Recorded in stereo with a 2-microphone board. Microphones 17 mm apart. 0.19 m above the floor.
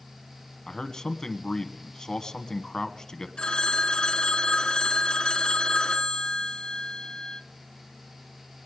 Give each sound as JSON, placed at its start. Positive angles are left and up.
{"t": 0.7, "sound": "a man speaking", "side_deg": 35, "distance_m": 1.3}
{"t": 3.4, "sound": "a phone ringing", "side_deg": 60, "distance_m": 1.6}